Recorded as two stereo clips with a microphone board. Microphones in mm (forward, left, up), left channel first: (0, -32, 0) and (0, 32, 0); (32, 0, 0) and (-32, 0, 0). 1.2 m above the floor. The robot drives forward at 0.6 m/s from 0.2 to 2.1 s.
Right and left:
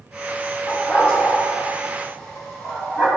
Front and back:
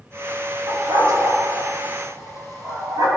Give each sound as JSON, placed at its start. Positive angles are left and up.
{"t": 0.7, "sound": "a dog barking", "azimuth_deg": -155, "distance_m": 2.0}